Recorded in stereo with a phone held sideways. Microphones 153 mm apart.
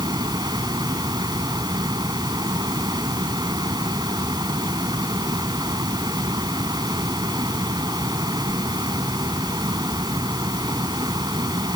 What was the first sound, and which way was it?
A fan, 25° right (ahead or behind).